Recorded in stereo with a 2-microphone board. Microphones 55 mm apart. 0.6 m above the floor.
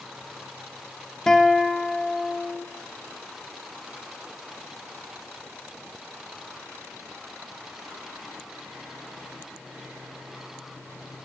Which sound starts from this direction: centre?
A guitar, at 1.3 s.